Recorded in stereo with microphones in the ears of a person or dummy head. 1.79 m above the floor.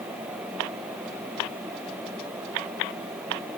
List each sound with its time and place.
Only background noise.